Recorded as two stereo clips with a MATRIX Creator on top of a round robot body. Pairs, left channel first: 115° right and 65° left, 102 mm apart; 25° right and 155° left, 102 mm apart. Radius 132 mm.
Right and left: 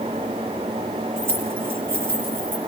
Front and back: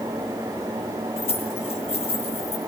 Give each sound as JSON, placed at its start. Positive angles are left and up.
{"t": 1.2, "sound": "keys jangling", "azimuth_deg": -5, "distance_m": 7.5}